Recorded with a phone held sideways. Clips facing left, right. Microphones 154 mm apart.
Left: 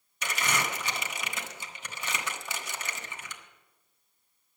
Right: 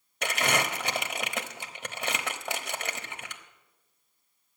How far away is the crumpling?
About 1.2 m.